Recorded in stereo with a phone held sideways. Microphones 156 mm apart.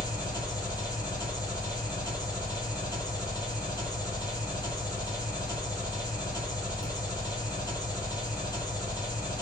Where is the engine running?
25° left (ahead or behind), 1.7 m.